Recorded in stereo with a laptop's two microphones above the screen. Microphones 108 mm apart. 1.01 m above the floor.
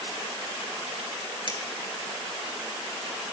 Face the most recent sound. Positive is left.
turn(degrees=50)  # may be behind; listen again after turning